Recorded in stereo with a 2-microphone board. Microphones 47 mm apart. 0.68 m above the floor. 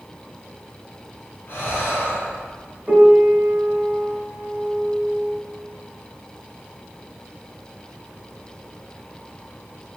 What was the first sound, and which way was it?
Breathing, 50° left (ahead or behind).